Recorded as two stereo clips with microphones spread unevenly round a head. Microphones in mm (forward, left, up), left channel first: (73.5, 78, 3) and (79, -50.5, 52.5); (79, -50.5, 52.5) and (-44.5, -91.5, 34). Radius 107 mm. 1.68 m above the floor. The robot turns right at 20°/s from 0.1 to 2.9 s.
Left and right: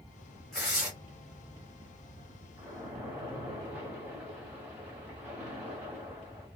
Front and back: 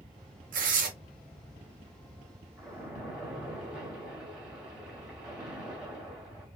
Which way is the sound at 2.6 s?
75° right.